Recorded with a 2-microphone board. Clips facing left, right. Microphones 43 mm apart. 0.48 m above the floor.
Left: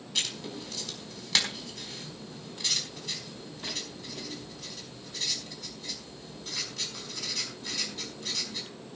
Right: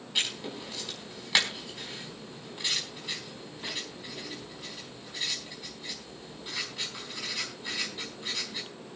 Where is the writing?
20° right (ahead or behind), 4 m.